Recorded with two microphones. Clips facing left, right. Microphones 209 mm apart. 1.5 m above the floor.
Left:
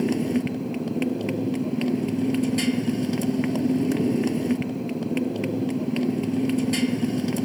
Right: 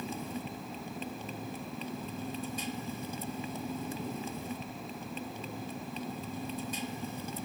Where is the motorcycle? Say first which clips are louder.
Left 17 dB; 85° left.